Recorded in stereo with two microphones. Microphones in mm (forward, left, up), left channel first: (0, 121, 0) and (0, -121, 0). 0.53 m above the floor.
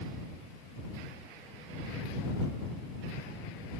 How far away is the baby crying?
I don't hear a baby crying.